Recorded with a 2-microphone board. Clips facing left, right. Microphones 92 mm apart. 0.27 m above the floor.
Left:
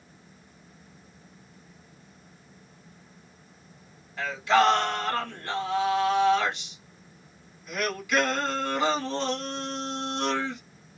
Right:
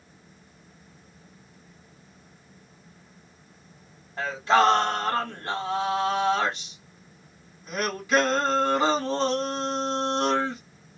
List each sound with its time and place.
4.2 s singing: 35° right (ahead or behind), 1.2 m